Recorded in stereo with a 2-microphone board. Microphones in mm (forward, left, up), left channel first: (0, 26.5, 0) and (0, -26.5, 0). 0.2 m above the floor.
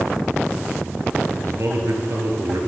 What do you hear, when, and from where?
1.4 s a man speaking: 65° right (ahead or behind), 3 m